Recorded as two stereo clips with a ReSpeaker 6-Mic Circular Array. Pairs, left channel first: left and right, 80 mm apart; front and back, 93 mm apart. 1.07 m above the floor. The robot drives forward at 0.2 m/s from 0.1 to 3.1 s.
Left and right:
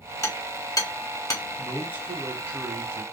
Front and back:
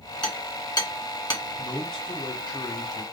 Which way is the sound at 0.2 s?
35° left.